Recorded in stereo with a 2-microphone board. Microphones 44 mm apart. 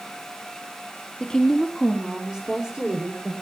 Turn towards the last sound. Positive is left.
turn(degrees=-20)  # may be behind; listen again after turning